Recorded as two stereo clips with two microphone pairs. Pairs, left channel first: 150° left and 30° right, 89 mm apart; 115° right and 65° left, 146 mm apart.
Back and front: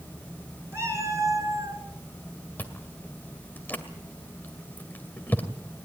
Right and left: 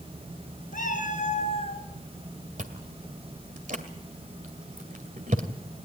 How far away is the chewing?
About 2 m.